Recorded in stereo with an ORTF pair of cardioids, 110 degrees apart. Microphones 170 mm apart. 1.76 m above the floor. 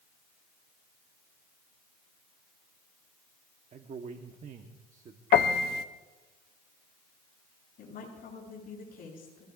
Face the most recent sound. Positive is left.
turn(degrees=55)